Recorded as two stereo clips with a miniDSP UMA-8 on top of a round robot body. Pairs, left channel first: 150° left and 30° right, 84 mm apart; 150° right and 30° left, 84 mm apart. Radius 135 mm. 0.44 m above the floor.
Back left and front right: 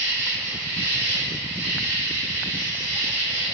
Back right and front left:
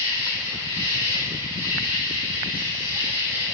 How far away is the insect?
About 1.9 m.